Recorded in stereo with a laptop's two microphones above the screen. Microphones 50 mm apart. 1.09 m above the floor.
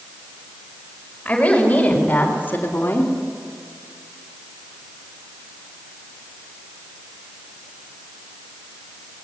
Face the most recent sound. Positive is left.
turn(degrees=55)  # may be behind; listen again after turning